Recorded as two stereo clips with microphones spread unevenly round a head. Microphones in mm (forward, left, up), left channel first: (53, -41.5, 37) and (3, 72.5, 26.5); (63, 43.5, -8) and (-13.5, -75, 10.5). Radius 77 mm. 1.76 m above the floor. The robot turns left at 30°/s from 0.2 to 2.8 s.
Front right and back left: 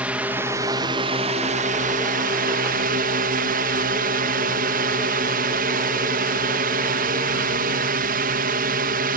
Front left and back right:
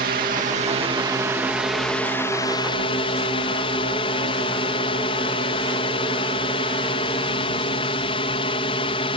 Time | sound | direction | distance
0.0 | a drone | 165° right | ?